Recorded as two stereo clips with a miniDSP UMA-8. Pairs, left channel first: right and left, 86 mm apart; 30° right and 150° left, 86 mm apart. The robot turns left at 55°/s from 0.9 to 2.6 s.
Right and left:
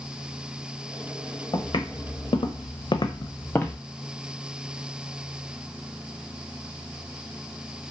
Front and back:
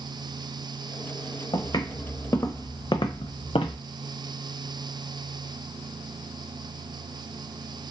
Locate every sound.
1.5 s footsteps: 60° right, 1.0 m; by 3.8 s 15° right, 0.7 m